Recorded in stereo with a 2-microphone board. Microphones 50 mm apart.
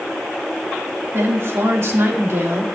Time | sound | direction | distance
1.1 | a woman speaking | 65° right (ahead or behind) | 3 m